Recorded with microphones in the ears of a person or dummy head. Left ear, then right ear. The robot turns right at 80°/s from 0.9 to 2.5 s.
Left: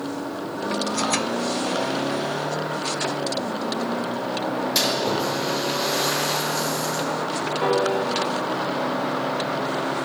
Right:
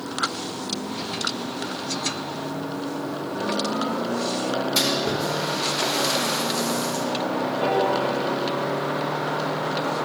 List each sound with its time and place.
4.8 s a splash: 25° left (ahead or behind), 4.5 m
7.6 s a piano: 30° left (ahead or behind), 1.7 m